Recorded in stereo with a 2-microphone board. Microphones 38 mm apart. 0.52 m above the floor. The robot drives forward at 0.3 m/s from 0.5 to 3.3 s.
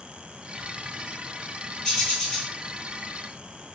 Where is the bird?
25° left (ahead or behind), 1.5 m; by 2.5 s 20° left (ahead or behind), 1.6 m.